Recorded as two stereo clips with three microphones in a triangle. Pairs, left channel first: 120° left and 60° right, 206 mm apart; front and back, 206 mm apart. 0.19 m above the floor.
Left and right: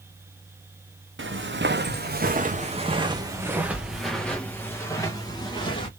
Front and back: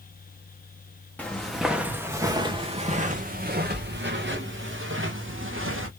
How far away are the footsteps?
About 1.3 m.